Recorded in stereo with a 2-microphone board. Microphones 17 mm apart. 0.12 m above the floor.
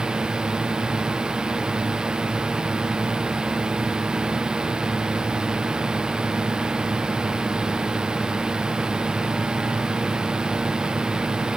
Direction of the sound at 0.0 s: 50° right (ahead or behind).